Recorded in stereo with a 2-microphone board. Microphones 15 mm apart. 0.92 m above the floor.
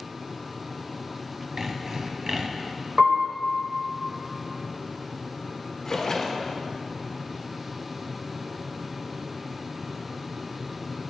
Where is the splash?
25° left (ahead or behind), 1.3 m.